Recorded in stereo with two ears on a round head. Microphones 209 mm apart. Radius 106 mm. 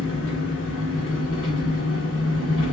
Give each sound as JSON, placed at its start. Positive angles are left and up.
{"t": 0.0, "sound": "an engine running", "side_deg": 60, "distance_m": 1.3}